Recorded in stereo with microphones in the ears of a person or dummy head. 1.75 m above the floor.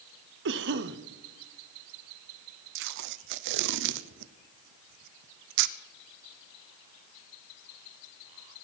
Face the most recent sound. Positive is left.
turn(degrees=-60)  # may be behind; listen again after turning